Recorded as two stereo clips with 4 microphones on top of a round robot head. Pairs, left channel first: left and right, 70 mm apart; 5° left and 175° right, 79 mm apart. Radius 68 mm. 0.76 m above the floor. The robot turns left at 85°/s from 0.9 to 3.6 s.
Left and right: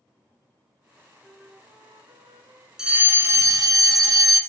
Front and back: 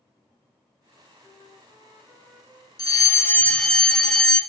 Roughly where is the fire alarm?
Ahead.